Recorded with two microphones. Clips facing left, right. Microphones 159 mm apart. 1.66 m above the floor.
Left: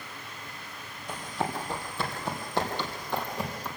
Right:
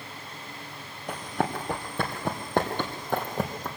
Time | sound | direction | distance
1.1 | running footsteps | 60° right (ahead or behind) | 3 m